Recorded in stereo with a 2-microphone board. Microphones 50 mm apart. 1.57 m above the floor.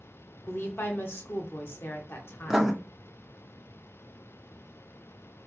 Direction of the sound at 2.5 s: 5° right (ahead or behind).